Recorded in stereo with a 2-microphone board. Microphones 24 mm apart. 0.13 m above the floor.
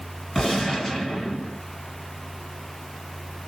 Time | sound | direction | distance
0.3 | a gunshot | 15° left (ahead or behind) | 2 m